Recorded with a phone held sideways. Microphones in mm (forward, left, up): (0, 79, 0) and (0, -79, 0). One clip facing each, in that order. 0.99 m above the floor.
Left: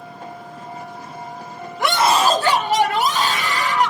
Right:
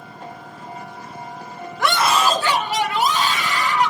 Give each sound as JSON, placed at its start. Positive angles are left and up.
{"t": 1.8, "sound": "a scream", "side_deg": 15, "distance_m": 0.6}